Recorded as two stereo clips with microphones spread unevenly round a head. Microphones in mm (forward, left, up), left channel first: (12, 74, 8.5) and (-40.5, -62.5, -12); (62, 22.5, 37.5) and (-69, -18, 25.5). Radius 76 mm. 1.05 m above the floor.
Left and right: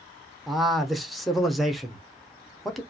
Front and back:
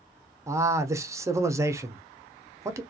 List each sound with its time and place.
0.5 s a man speaking: 175° left, 0.6 m